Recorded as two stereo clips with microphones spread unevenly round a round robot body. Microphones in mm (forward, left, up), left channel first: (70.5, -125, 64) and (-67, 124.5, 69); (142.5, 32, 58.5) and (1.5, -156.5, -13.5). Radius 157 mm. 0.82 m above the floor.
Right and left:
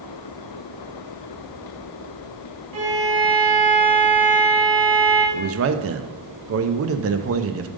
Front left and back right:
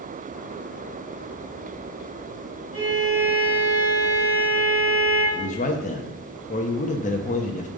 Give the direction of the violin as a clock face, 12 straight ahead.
7 o'clock.